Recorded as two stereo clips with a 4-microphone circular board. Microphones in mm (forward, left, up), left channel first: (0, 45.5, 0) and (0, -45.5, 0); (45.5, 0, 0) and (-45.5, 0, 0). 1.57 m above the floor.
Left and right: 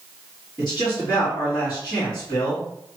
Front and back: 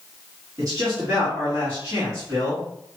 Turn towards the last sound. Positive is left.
turn(degrees=130)